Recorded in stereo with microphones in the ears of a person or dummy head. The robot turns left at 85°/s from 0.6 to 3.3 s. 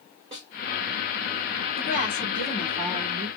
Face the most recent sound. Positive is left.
turn(degrees=-65)